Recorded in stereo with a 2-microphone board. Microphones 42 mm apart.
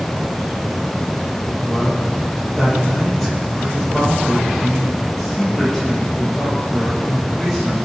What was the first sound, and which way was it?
A man speaking, 10° left (ahead or behind).